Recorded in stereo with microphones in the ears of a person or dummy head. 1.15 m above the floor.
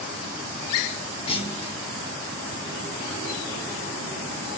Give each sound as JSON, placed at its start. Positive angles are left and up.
{"t": 1.3, "sound": "a clunk", "side_deg": 35, "distance_m": 1.1}